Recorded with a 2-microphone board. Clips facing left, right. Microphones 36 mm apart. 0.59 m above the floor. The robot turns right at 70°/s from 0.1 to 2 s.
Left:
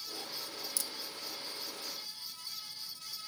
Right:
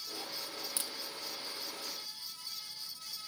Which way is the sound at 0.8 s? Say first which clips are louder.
Even; 35° right (ahead or behind).